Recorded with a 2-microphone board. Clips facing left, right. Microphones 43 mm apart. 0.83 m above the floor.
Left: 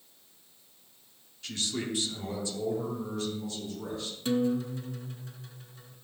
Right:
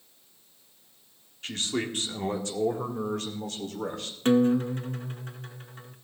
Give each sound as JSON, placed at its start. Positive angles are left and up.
{"t": 1.4, "sound": "a man speaking", "side_deg": -35, "distance_m": 1.7}
{"t": 4.2, "sound": "a guitar", "side_deg": -45, "distance_m": 0.7}